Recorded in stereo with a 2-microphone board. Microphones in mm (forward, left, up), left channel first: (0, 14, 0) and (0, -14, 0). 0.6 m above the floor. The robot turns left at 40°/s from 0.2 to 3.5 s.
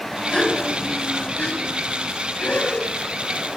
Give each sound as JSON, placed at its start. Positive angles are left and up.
{"t": 0.3, "sound": "a gasp", "side_deg": 30, "distance_m": 5.0}